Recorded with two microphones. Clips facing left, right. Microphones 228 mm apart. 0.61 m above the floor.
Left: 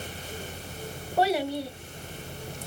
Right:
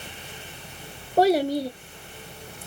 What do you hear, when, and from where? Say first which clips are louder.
1.2 s a child speaking: right 6 dB; 40° right (ahead or behind), 0.6 m